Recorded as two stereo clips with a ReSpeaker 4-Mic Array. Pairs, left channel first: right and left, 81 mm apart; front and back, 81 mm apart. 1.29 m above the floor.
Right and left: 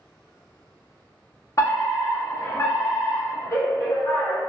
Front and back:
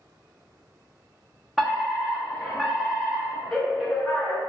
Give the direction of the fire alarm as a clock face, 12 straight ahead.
3 o'clock.